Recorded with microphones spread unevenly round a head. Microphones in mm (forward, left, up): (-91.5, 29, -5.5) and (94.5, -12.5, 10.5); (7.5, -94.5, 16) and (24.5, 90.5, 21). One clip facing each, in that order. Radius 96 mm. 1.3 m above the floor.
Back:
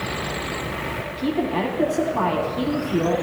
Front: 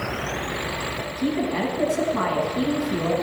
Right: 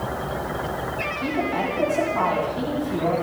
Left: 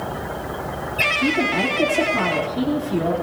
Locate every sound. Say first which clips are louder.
1.2 s a woman speaking: back 1 dB, left 4 dB; 25° left, 6.5 m